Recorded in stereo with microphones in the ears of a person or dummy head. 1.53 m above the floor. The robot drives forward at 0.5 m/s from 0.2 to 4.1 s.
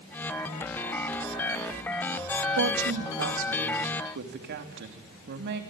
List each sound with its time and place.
2.6 s a woman speaking: 65° right (ahead or behind), 2.5 m; by 5.6 s 50° right (ahead or behind), 3 m